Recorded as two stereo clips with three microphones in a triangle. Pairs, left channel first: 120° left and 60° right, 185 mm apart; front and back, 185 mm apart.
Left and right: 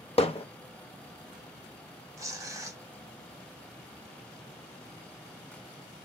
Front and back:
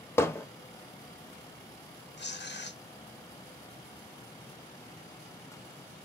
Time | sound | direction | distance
0.2 | hammering | 70° left | 0.8 m
2.2 | tearing paper | 15° left | 0.8 m